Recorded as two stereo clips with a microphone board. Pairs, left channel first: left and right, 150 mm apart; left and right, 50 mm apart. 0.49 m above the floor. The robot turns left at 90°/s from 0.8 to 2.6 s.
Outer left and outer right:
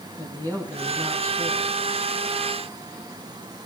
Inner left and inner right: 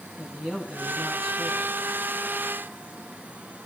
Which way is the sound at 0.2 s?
20° left.